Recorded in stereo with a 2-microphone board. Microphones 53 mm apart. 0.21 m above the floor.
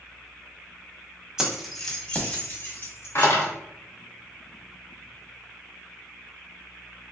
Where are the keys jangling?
10° right (ahead or behind), 0.8 m; by 3.5 s 55° left (ahead or behind), 1.2 m.